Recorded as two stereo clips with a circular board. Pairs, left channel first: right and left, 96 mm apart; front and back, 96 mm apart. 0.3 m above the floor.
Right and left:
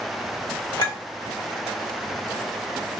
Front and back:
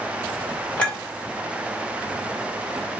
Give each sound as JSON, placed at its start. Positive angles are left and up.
{"t": 0.8, "sound": "a clink", "azimuth_deg": -70, "distance_m": 1.4}